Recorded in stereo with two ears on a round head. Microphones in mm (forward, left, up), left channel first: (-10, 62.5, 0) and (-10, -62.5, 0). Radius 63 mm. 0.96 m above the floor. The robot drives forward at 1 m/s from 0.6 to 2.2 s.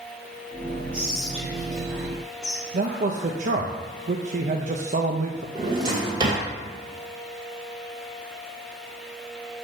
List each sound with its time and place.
0.9 s whispering: 10° right (ahead or behind), 0.8 m; by 3.6 s 5° right (ahead or behind), 2 m
2.7 s a man speaking: 55° right (ahead or behind), 0.7 m
5.5 s a drawer: 35° right (ahead or behind), 2 m